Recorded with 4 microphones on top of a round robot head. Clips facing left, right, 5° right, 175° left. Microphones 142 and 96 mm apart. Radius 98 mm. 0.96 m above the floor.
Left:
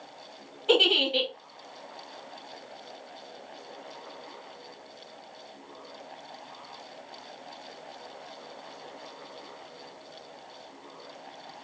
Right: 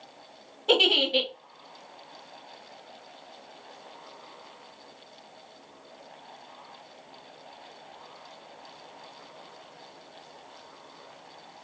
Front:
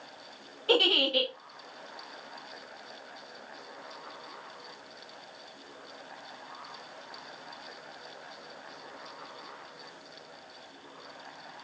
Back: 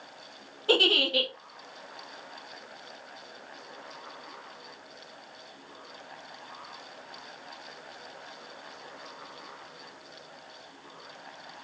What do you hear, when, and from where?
0.7 s a giggle: 130° right, 1.3 m